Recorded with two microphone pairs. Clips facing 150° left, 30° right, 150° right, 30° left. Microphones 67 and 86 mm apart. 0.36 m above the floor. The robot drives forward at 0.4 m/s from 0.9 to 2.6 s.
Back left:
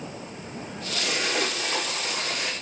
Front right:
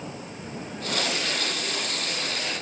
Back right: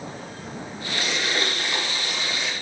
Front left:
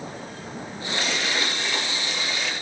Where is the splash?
130° left, 8 m; by 2.5 s 135° left, 8.5 m.